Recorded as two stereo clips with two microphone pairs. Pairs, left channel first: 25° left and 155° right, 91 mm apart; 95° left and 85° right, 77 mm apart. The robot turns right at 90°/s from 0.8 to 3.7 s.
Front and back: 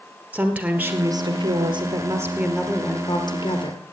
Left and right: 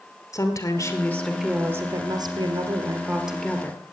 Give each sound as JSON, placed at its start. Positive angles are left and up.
{"t": 0.3, "sound": "a woman speaking", "azimuth_deg": 135, "distance_m": 3.0}